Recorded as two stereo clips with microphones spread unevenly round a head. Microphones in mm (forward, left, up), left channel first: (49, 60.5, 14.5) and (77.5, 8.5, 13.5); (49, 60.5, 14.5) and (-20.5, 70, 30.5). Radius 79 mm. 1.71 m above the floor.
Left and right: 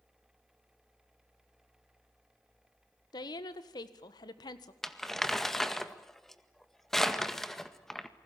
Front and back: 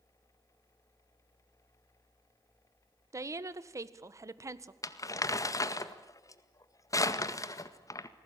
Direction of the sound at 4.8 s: 35° left.